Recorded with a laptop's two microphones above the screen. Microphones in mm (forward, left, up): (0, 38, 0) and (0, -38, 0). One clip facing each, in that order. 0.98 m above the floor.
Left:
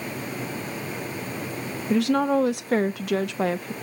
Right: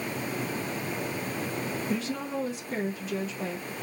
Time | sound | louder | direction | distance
1.9 | a woman speaking | left 15 dB | 70° left (ahead or behind) | 0.5 m